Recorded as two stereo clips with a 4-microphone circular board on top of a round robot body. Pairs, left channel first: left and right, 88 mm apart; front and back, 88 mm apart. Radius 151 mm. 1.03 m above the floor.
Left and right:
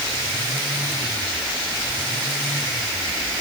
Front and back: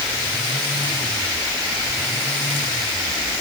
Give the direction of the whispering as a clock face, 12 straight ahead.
No whispering in this recording.